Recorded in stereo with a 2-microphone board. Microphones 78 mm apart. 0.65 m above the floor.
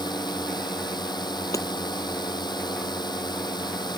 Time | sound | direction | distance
0.0 | a drone | 65° left (ahead or behind) | ?
1.5 | hammering | 45° left (ahead or behind) | ?